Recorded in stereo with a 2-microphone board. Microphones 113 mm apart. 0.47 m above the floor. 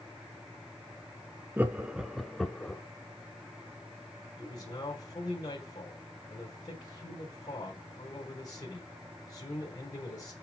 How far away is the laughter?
About 0.8 m.